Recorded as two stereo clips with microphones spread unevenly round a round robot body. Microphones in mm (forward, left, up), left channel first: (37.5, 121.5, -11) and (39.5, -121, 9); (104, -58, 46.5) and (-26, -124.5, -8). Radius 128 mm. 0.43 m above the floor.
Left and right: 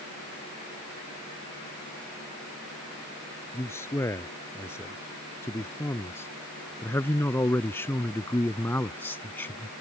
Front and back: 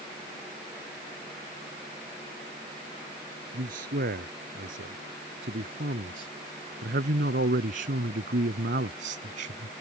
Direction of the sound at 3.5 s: 170° left.